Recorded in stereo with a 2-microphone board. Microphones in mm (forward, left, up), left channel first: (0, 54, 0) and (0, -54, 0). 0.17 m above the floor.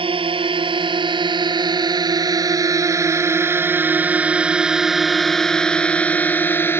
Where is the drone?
55° right (ahead or behind); by 6.8 s 20° left (ahead or behind).